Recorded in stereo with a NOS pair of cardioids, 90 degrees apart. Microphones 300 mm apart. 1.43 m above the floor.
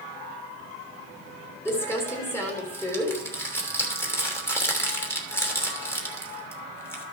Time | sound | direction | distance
1.6 | crumpling | 10° left | 3 m